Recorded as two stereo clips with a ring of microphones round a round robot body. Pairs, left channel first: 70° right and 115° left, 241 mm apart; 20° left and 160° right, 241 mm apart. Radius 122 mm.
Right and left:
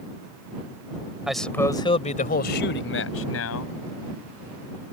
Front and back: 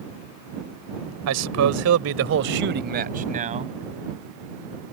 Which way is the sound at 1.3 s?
160° right.